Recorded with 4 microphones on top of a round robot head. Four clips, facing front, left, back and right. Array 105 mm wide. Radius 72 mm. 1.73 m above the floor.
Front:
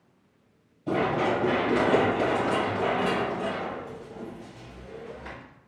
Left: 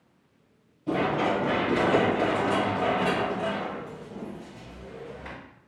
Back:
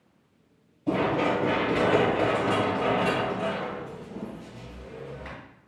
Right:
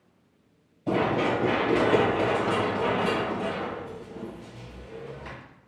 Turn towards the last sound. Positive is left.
turn(degrees=135)